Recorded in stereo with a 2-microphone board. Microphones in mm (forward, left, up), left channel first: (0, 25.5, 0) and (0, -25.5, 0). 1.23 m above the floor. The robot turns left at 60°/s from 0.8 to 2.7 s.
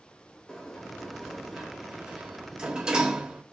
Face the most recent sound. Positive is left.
turn(degrees=-20)  # may be behind; listen again after turning